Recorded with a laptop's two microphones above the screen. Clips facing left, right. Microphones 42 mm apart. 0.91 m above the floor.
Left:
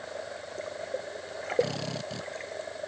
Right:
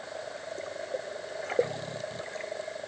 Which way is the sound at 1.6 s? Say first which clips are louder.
Left 1 dB; 85° left.